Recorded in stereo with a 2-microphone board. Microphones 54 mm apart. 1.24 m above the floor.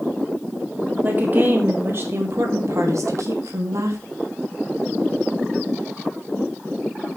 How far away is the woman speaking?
About 4 m.